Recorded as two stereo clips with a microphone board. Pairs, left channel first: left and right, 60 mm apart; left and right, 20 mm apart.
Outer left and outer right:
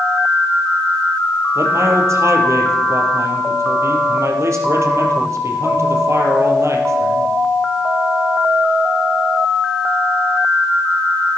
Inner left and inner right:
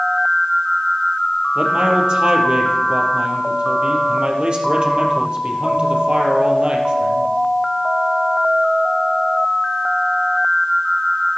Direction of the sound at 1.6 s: 50° right (ahead or behind).